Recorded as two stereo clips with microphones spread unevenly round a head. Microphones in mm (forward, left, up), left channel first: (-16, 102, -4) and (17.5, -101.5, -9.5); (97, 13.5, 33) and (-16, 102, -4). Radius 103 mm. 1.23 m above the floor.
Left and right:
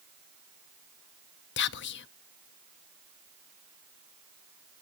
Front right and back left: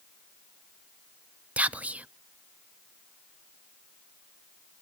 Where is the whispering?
65° left, 0.6 m.